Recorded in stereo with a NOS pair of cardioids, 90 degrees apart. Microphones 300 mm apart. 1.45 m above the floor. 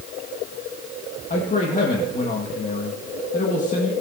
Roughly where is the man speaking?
Ahead left.